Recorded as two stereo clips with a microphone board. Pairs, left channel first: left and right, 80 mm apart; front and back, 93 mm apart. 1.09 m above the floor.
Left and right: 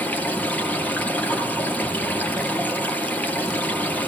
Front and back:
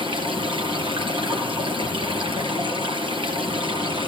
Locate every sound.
0.0 s running water: 160° left, 3 m